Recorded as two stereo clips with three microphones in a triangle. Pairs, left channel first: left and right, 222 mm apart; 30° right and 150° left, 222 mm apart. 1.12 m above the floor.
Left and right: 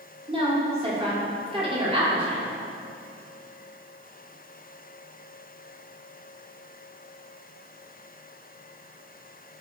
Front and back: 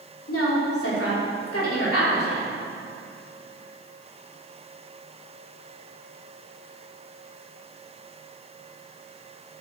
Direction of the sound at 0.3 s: 25° right.